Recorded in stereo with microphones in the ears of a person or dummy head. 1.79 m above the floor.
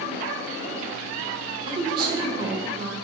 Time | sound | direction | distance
1.7 | a woman speaking | 35° right (ahead or behind) | 0.6 m